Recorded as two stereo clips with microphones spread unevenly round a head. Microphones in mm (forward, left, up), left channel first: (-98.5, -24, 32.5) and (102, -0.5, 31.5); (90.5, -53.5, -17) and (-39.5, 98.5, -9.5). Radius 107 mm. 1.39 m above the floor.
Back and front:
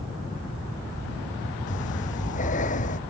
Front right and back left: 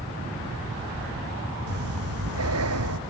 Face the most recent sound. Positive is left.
turn(degrees=130)